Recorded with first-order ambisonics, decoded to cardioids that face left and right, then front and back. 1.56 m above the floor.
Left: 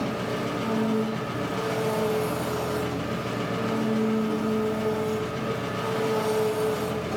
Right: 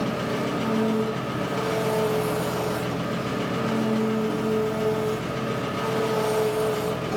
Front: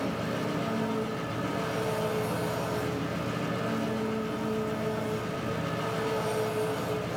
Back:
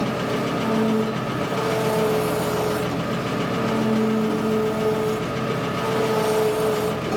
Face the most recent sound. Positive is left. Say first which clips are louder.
# right 2 dB, back 8 dB
turn(degrees=-175)